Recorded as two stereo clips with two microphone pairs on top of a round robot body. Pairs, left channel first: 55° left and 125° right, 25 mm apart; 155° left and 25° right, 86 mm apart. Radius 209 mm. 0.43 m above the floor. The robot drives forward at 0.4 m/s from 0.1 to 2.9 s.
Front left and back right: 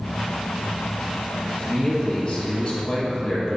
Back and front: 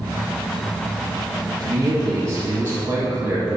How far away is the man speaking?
About 1.9 m.